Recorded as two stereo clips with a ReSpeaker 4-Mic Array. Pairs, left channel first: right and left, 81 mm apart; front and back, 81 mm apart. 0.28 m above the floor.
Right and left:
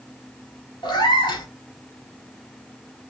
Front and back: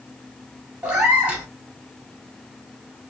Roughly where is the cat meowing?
Right.